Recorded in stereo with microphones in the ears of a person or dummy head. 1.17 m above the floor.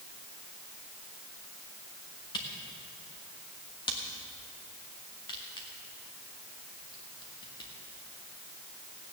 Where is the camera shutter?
25° left (ahead or behind), 1.4 m.